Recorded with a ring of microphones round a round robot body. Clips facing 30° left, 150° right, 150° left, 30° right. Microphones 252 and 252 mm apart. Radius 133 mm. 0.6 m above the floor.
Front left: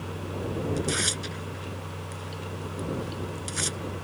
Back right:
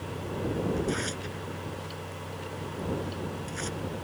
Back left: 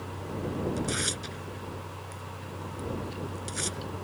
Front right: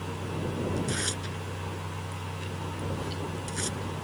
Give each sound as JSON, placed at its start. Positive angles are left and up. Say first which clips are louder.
{"t": 0.8, "sound": "tearing paper", "louder": "even, even", "azimuth_deg": 65}